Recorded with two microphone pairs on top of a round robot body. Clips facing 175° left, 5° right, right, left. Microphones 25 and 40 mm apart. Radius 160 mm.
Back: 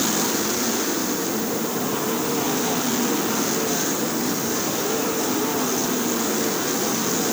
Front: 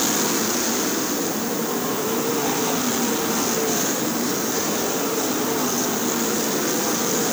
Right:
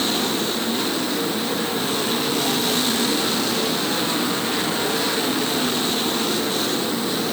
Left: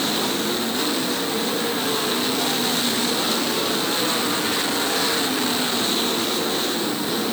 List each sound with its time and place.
Only background noise.